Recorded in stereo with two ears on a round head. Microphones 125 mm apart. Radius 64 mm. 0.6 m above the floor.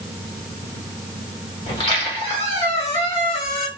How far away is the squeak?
About 1.4 m.